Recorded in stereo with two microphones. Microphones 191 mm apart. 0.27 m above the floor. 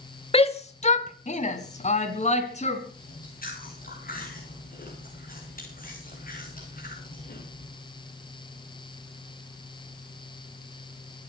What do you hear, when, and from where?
0.3 s a shout: 30° left (ahead or behind), 1.0 m; by 2.8 s 35° left (ahead or behind), 3 m
3.0 s chewing: 50° left (ahead or behind), 6 m